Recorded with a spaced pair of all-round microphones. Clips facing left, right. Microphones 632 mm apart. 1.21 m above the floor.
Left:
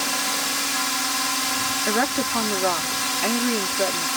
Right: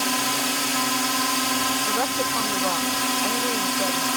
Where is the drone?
70° right (ahead or behind).